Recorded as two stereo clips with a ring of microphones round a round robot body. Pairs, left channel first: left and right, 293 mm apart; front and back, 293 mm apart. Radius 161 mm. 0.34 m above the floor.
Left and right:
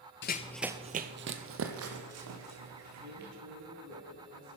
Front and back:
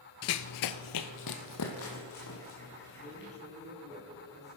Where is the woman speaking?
70° right, 3.5 m.